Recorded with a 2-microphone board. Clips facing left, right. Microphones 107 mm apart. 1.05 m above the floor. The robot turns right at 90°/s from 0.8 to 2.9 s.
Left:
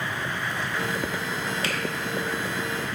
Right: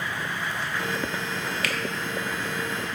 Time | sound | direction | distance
1.6 | a finger snap | 25° left (ahead or behind) | 0.6 m